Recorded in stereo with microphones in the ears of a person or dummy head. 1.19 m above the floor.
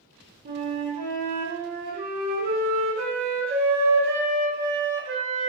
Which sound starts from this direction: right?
A flute, at 0.5 s.